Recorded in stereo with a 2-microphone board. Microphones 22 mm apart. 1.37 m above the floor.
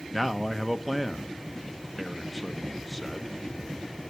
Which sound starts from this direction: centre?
A man speaking, at 0.1 s.